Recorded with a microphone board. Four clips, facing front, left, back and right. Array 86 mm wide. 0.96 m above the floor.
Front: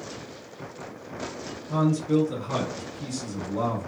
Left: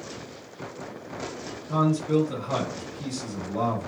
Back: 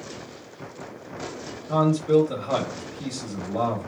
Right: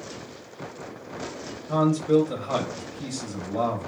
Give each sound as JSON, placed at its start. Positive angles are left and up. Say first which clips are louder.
{"t": 1.7, "sound": "a man speaking", "louder": "right 3 dB, back 4 dB", "azimuth_deg": -150, "distance_m": 0.7}